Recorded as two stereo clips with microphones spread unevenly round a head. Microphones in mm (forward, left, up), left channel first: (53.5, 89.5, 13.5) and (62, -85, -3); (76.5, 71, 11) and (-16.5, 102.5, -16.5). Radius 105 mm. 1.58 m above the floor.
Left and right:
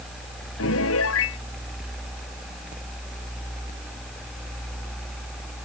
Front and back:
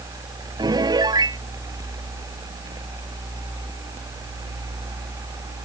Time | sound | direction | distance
0.6 | a piano | 110° left | ?